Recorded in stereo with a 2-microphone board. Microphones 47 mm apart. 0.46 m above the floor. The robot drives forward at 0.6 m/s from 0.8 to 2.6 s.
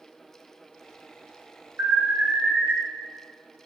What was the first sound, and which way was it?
An alarm, 70° right (ahead or behind).